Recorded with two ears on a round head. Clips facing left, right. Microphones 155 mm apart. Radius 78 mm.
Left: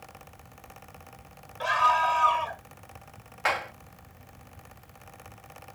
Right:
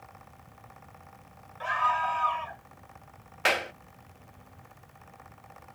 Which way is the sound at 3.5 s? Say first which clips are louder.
Right 1 dB; 35° right (ahead or behind).